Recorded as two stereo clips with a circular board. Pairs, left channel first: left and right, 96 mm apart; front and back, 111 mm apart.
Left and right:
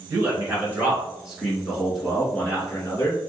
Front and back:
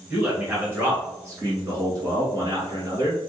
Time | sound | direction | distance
0.1 | a man speaking | 115° right | 1.6 m